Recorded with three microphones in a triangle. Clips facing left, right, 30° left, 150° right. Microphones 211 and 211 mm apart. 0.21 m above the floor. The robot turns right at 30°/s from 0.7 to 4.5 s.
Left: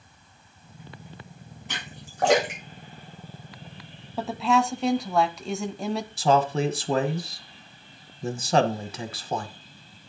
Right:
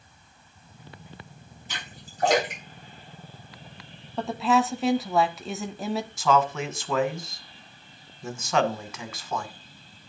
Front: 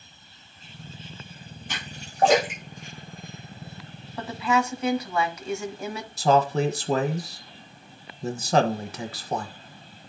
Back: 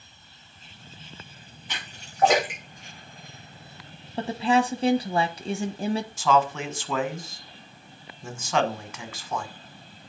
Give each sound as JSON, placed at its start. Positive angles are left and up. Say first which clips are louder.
{"t": 1.7, "sound": "a splash", "louder": "left 2 dB, front 2 dB", "azimuth_deg": 70, "distance_m": 8.5}
{"t": 4.2, "sound": "a woman speaking", "louder": "even, back 3 dB", "azimuth_deg": 175, "distance_m": 1.2}
{"t": 6.2, "sound": "a man speaking", "louder": "left 3 dB, front 6 dB", "azimuth_deg": 55, "distance_m": 1.4}